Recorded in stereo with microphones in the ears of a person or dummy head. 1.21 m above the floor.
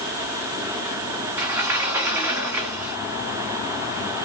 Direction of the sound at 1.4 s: 15° right (ahead or behind).